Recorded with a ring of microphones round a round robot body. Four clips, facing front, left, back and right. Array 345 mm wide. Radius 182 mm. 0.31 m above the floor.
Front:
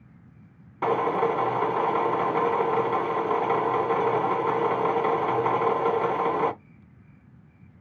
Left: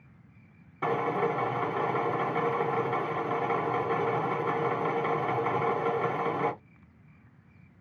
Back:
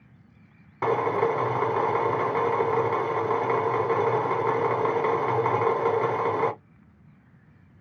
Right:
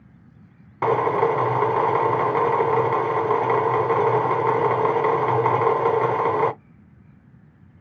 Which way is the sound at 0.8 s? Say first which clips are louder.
Right 9 dB, even; 100° right.